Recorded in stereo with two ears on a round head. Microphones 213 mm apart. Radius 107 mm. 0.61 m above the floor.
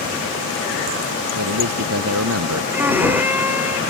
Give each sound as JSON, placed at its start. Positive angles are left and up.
{"t": 1.4, "sound": "a man speaking", "side_deg": -70}
{"t": 2.7, "sound": "a violin", "side_deg": -10}